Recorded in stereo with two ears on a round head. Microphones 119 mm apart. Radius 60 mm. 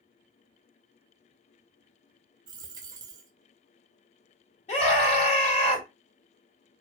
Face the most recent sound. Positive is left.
turn(degrees=50)  # may be behind; listen again after turning